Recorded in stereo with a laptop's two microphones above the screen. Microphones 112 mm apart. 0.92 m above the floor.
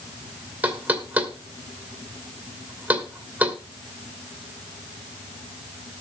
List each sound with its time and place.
0.6 s knocking: 15° right (ahead or behind), 2 m